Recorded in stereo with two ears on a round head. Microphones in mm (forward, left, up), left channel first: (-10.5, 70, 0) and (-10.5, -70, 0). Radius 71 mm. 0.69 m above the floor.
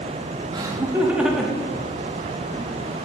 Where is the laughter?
25° right (ahead or behind), 1.1 m; by 2.7 s 20° left (ahead or behind), 2 m.